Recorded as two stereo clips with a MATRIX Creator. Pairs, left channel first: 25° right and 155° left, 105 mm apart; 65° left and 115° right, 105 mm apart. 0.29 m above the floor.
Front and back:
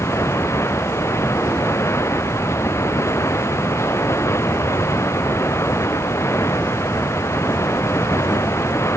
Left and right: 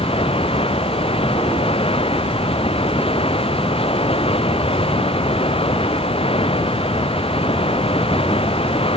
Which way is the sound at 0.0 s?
40° left.